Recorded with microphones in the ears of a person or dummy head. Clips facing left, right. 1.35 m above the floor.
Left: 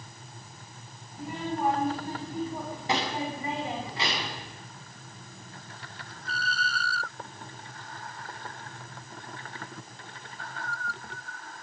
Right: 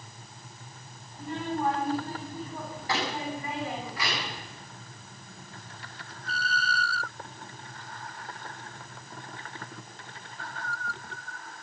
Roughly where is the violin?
No violin in this recording.